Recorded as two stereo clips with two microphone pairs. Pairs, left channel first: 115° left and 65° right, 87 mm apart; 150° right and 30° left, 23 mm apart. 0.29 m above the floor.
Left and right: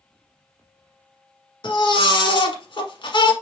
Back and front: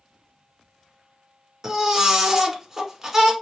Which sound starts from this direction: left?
A baby crying, at 1.6 s.